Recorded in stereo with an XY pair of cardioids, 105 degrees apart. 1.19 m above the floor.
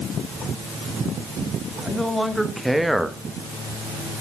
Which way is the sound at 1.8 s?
Straight ahead.